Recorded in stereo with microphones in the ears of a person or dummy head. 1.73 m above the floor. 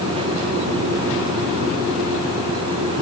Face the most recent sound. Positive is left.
No sound to turn to.